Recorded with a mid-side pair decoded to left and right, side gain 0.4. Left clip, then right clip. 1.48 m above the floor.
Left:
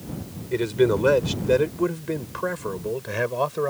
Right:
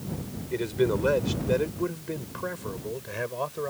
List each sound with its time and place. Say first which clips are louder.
0.5 s a man speaking: left 5 dB; 40° left; by 3.7 s 55° left